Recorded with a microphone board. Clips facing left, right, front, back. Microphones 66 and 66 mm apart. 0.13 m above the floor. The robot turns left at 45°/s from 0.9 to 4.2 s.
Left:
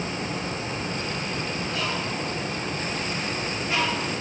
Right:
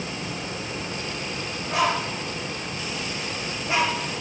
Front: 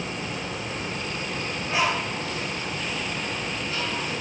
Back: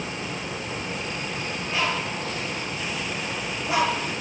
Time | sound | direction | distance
1.7 | a bird | 70° right | 1.6 m